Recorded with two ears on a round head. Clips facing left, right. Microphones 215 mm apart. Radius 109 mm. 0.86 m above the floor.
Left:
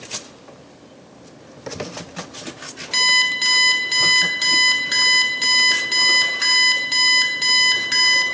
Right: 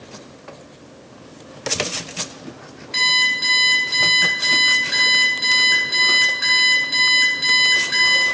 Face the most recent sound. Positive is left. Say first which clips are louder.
# even
turn(degrees=85)